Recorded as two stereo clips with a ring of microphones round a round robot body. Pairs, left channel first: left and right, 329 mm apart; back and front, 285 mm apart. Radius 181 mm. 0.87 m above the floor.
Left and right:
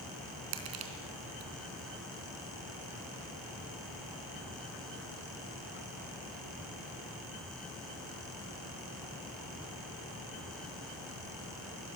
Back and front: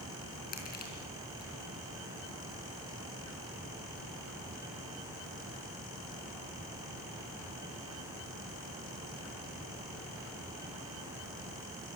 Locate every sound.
0.5 s crushing: 115° right, 4 m